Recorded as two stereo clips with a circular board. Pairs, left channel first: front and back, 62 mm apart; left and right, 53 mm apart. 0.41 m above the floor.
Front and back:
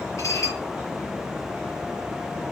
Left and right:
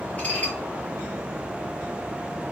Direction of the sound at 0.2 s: 30° left.